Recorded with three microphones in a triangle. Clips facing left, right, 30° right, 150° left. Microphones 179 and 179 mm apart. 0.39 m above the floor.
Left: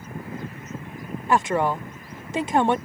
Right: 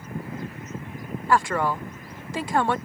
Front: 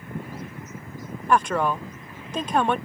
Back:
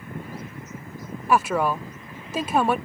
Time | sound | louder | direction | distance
1.3 | a woman speaking | left 1 dB, even | 80° left | ?